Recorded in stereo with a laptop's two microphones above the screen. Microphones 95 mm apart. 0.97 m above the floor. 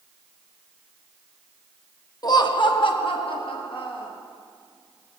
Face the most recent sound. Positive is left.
turn(degrees=65)  # may be behind; listen again after turning